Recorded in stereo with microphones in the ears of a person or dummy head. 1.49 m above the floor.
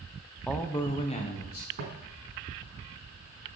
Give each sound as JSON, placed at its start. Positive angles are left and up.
{"t": 0.5, "sound": "a man speaking", "side_deg": 0, "distance_m": 0.8}
{"t": 1.8, "sound": "footsteps", "side_deg": -60, "distance_m": 4.5}